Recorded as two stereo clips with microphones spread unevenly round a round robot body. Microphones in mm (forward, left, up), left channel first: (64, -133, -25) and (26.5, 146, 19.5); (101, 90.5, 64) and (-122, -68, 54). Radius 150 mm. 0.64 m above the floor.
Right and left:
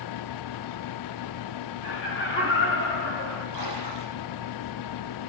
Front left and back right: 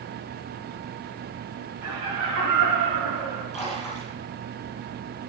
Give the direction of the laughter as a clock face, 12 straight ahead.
5 o'clock.